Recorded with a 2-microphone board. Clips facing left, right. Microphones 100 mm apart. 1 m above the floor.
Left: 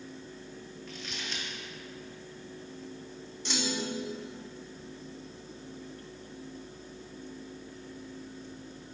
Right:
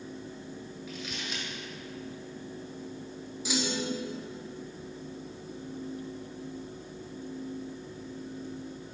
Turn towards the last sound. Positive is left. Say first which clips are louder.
# right 2 dB
turn(degrees=-5)  # may be behind; listen again after turning